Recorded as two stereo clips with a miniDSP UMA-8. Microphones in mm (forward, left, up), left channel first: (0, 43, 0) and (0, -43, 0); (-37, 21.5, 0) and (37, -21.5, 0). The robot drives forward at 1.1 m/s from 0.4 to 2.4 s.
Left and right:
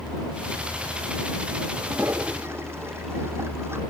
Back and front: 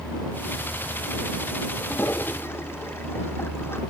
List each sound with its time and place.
1.8 s a toilet flushing: 150° right